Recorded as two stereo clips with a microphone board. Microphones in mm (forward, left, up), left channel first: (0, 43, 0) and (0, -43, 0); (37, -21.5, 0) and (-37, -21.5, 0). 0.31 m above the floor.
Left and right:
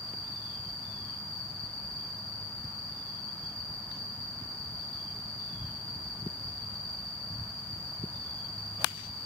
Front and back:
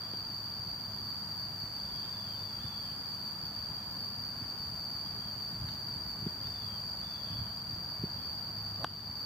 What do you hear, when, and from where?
0.0 s an insect: 45° right, 6 m